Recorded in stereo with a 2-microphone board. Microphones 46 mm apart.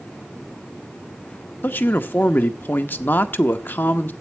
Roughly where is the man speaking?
Left.